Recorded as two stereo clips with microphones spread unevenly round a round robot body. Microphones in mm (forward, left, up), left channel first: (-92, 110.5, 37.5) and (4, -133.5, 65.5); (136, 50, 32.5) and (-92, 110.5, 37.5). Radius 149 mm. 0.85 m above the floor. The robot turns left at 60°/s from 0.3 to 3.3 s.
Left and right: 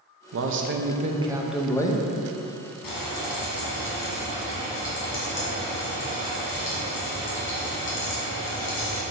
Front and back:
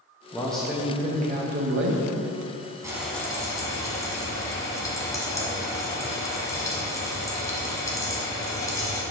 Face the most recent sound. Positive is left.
turn(degrees=60)